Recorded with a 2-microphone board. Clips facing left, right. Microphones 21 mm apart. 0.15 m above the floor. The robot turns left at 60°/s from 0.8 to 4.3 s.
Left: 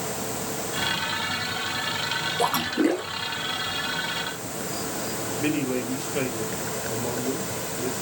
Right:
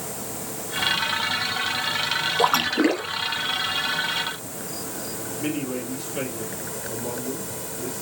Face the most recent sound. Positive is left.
turn(degrees=30)  # may be behind; listen again after turning